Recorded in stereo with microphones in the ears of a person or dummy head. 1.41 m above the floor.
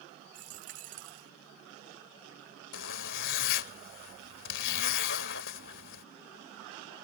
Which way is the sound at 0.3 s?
45° right (ahead or behind).